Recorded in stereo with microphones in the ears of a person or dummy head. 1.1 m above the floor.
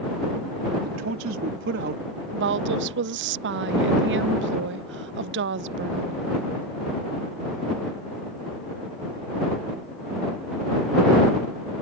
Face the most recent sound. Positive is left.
turn(degrees=-60)  # may be behind; listen again after turning